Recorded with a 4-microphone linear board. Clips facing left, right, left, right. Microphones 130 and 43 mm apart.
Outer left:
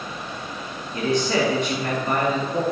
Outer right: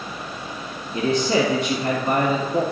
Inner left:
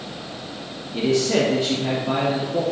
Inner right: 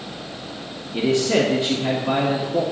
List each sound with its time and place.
0.9 s a man speaking: 30° right (ahead or behind), 1.9 m